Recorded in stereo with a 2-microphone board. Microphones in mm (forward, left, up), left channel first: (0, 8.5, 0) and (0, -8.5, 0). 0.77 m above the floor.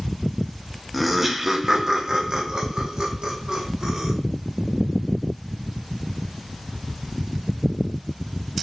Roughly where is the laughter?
Centre.